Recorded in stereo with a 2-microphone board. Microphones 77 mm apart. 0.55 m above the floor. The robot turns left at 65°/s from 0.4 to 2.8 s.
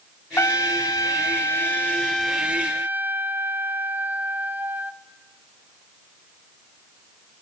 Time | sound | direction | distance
0.4 | a trumpet | 120° left | 0.9 m